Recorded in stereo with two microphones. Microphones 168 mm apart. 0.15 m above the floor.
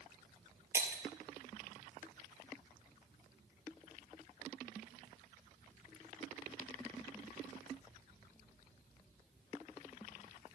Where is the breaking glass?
15° right (ahead or behind), 1.4 m.